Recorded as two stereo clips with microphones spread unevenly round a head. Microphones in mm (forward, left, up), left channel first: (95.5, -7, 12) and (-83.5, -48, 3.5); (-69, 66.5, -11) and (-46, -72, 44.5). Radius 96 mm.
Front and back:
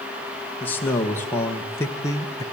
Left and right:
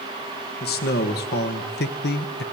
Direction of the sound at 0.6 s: 95° left.